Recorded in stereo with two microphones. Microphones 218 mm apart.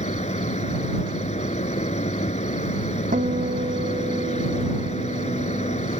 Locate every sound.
0.0 s an insect: 35° left (ahead or behind)
3.1 s a guitar: 40° right (ahead or behind)